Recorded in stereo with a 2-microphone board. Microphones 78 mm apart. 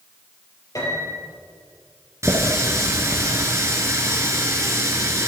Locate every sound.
0.8 s a piano: 45° left (ahead or behind), 4 m
2.2 s a running tap: 35° right (ahead or behind), 1.7 m